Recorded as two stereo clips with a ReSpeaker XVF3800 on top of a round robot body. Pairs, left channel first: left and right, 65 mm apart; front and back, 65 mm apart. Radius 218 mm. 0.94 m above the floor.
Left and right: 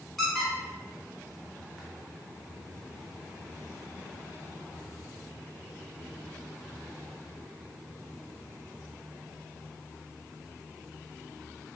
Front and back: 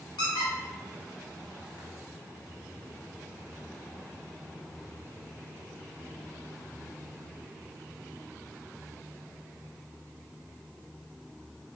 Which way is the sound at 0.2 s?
Straight ahead.